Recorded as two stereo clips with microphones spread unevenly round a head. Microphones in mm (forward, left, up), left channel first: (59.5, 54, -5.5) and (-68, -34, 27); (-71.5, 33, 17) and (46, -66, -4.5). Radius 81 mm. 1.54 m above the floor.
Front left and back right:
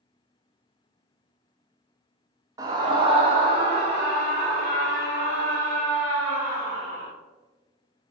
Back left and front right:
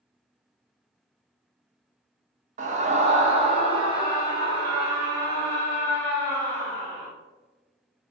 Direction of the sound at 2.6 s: 85° right.